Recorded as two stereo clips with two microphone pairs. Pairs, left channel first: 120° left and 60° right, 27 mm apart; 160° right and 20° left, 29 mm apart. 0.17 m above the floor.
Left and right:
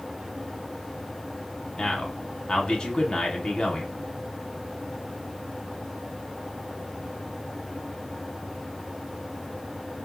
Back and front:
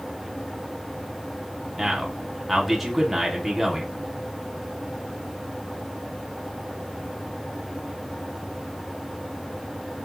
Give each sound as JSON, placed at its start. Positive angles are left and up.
{"t": 1.8, "sound": "a man speaking", "azimuth_deg": 105, "distance_m": 1.1}